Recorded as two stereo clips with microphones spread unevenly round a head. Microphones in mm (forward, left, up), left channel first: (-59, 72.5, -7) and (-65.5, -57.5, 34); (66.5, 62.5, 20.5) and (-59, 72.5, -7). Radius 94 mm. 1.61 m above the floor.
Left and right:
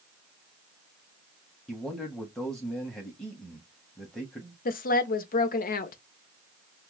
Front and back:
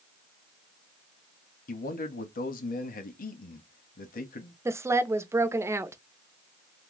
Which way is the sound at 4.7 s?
100° left.